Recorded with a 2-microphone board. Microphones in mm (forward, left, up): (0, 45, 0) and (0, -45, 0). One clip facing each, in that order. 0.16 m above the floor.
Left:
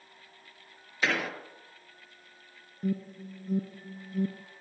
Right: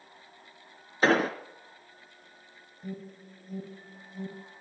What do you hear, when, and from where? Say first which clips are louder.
1.0 s an explosion: right 7 dB; 35° right (ahead or behind), 1.3 m
2.8 s an alarm: left 8 dB; 60° left (ahead or behind), 2 m